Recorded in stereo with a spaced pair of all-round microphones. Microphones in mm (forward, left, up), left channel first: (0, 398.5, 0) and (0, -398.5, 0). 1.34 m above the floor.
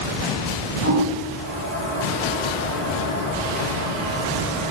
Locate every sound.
0.8 s a toilet flushing: 40° right (ahead or behind), 1.8 m